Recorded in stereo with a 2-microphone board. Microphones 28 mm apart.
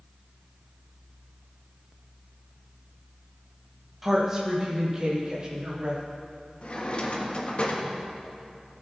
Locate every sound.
4.0 s a woman speaking: 5° right (ahead or behind), 1.9 m; by 6.0 s 30° right (ahead or behind), 4.5 m
6.6 s a drawer: 50° left (ahead or behind), 1.3 m